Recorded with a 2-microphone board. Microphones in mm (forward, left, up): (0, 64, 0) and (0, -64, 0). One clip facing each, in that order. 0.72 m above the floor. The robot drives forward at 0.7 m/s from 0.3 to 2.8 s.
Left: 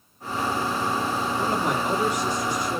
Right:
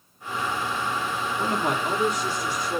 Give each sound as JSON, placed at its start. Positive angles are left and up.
{"t": 1.4, "sound": "a man speaking", "side_deg": -10, "distance_m": 1.5}